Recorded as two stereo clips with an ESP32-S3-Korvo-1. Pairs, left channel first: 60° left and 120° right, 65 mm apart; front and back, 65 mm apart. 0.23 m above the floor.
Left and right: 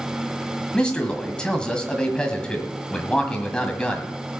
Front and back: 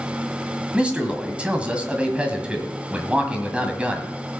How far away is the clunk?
No clunk in this recording.